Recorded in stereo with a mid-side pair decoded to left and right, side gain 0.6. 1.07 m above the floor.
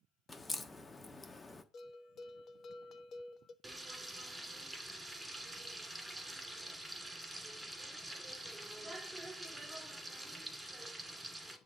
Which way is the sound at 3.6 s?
10° right.